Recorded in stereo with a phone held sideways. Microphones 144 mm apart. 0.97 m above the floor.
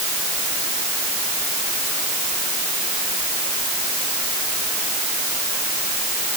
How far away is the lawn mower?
I don't hear a lawn mower.